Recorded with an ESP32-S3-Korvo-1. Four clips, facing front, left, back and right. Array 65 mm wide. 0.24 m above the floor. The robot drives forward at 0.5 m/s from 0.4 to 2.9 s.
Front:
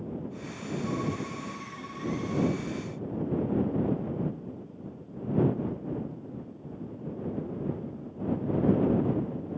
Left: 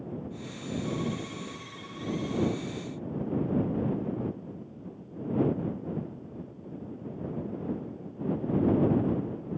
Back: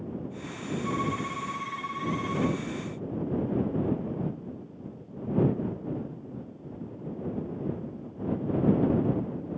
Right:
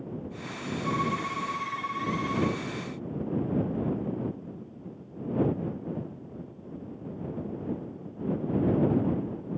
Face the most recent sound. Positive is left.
turn(degrees=-120)